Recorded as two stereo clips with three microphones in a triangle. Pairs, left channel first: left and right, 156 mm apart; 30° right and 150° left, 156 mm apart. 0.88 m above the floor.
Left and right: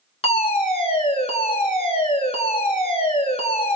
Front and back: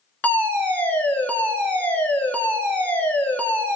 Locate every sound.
0.2 s a fire alarm: 45° left, 2.5 m